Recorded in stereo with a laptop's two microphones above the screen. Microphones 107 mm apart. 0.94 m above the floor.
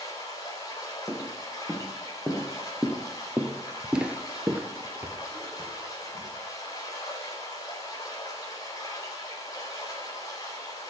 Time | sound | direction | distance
0.0 | running water | 35° left (ahead or behind) | 4 m
1.1 | footsteps | 5° left (ahead or behind) | 4 m